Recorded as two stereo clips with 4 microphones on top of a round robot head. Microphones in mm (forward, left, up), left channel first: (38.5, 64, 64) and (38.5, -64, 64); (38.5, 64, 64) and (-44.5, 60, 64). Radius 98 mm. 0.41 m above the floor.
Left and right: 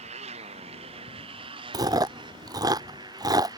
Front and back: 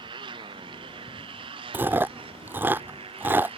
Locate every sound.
0.0 s a motorcycle: 135° right; by 3.6 s 155° right
1.7 s chewing: 130° right